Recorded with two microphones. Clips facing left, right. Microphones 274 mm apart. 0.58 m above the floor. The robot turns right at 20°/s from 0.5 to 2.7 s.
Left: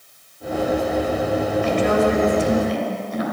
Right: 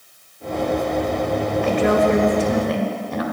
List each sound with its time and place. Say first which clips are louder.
1.6 s a woman speaking: right 2 dB; 60° right (ahead or behind), 2.5 m; by 3.2 s 70° right (ahead or behind), 2.5 m